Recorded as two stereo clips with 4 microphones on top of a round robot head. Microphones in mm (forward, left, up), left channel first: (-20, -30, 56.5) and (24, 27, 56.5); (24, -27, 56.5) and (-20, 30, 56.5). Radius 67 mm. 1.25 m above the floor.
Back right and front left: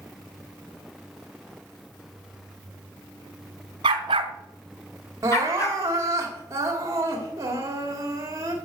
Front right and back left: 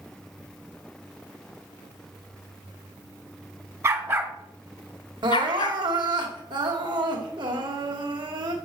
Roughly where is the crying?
Left.